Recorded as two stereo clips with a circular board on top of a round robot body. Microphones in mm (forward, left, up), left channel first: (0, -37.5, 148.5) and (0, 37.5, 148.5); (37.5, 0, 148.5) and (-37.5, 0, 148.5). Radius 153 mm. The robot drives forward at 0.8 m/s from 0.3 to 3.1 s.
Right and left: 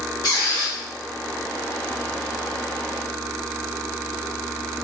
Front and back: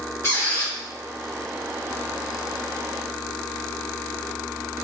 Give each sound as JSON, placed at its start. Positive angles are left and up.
{"t": 0.2, "sound": "a squeak", "azimuth_deg": -55, "distance_m": 1.4}